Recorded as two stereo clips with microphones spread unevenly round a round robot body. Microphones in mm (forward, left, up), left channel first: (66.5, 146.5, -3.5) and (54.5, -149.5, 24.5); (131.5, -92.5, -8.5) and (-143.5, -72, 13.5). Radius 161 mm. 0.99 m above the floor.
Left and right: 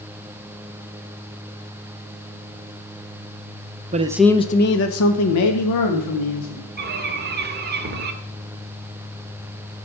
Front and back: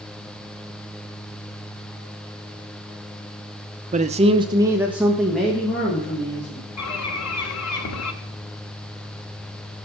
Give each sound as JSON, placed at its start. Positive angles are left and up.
{"t": 3.9, "sound": "a man speaking", "azimuth_deg": -140, "distance_m": 0.7}
{"t": 6.8, "sound": "a bird", "azimuth_deg": -35, "distance_m": 1.6}